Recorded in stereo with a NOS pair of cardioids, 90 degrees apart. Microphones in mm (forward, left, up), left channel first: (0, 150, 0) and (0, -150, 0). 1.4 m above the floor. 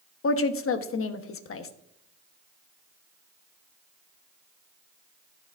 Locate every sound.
0.2 s a woman speaking: 50° left, 1.3 m